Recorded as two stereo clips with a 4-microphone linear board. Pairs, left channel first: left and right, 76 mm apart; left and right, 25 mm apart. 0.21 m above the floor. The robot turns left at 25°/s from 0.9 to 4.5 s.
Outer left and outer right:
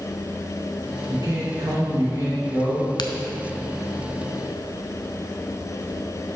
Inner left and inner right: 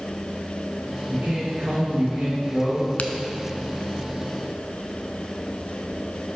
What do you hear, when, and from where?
1.1 s a man speaking: 80° right, 2 m; by 2.9 s 125° right, 2 m
3.0 s a crack: 70° left (ahead or behind), 0.5 m